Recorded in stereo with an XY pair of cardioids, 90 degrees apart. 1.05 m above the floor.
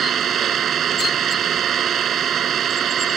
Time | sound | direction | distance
0.0 | an engine running | 65° right | ?